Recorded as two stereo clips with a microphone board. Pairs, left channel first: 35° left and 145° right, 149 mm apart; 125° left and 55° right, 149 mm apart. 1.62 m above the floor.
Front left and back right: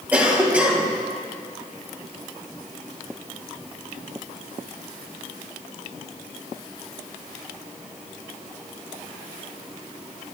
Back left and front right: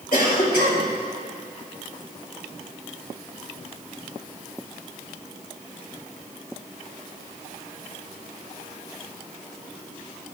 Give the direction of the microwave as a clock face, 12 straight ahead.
I don't hear a microwave.